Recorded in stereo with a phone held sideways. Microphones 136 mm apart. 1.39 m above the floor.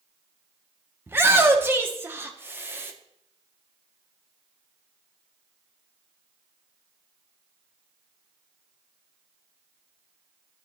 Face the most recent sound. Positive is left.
turn(degrees=-20)  # may be behind; listen again after turning